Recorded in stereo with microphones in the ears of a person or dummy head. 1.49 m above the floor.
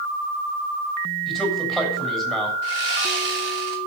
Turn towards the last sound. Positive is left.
turn(degrees=-80)